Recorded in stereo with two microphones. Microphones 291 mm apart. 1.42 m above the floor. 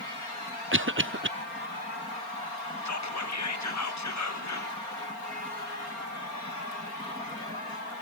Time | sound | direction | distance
0.7 | a cough | 45° right (ahead or behind) | 0.7 m
2.9 | whispering | 70° left (ahead or behind) | 1.1 m